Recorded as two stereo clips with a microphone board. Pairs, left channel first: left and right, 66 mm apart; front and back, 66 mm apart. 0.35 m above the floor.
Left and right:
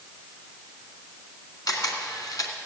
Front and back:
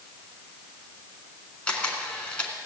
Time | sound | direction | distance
1.7 | a camera shutter | 75° left | 2 m